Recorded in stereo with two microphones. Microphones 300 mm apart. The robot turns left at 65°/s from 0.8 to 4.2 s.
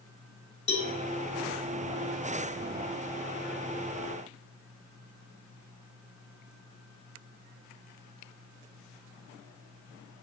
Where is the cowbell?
65° left (ahead or behind), 1.7 m.